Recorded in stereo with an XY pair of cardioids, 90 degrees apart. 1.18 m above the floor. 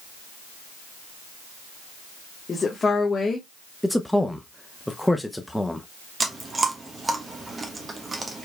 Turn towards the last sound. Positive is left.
turn(degrees=-30)